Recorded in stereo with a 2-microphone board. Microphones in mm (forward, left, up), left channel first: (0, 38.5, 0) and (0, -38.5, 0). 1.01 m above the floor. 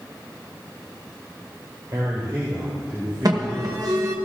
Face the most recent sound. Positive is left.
turn(degrees=-55)  # may be behind; listen again after turning